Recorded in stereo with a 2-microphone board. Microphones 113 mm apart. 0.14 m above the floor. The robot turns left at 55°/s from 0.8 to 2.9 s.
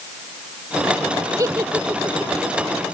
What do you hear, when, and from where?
1.4 s a giggle: 30° right (ahead or behind); by 2.3 s 10° right (ahead or behind)